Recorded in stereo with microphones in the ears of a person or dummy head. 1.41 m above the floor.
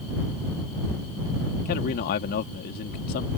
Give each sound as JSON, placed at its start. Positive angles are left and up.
{"t": 1.6, "sound": "a man speaking", "side_deg": 55}